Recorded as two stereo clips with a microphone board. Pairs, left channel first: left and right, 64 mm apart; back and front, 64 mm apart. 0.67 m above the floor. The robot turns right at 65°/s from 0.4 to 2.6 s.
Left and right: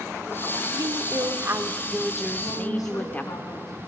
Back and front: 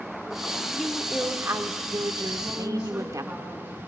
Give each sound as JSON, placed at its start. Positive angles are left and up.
{"t": 0.7, "sound": "a woman speaking", "azimuth_deg": -95, "distance_m": 1.4}
{"t": 2.4, "sound": "a woman speaking", "azimuth_deg": 70, "distance_m": 6.5}